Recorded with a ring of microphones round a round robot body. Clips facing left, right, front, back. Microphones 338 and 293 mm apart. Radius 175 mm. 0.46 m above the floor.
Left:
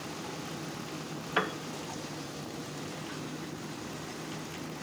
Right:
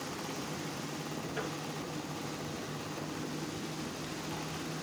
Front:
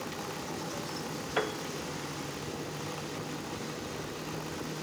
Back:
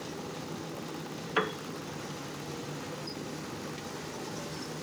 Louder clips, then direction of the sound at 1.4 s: Left 8 dB, back 1 dB; 110° left.